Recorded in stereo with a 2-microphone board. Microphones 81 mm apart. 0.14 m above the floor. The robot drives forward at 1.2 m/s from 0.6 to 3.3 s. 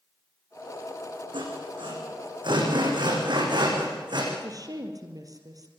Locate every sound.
1.3 s sawing: 80° right, 8.5 m; by 4.2 s 65° right (ahead or behind), 9 m
4.3 s a woman speaking: 45° right (ahead or behind), 4 m